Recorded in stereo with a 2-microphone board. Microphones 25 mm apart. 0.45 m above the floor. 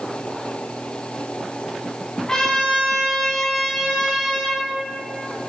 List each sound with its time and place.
2.3 s a trumpet: 25° left (ahead or behind), 1.1 m